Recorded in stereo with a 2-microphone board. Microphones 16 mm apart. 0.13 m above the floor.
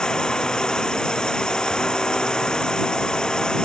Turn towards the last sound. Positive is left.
turn(degrees=55)  # may be behind; listen again after turning